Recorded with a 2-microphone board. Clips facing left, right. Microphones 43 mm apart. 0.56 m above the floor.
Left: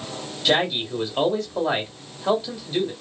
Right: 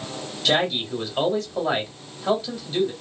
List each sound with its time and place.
0.5 s a man speaking: 5° left (ahead or behind), 1.4 m